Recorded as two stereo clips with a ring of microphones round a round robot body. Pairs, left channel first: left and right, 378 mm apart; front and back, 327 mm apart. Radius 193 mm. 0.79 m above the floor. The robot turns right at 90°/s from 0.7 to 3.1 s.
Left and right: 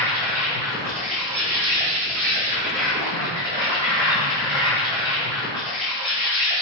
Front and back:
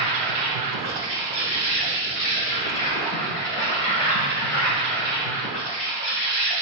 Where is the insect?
170° left, 1.8 m; by 6.6 s 25° left, 1.8 m.